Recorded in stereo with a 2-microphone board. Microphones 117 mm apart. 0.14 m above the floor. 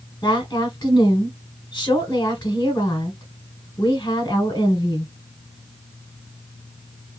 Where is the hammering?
No hammering in this recording.